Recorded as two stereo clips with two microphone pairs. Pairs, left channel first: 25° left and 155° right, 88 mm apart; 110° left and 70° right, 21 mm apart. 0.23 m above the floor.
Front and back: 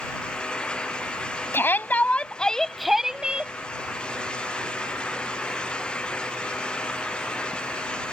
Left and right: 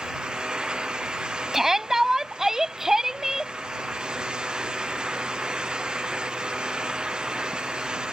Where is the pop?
No pop in this recording.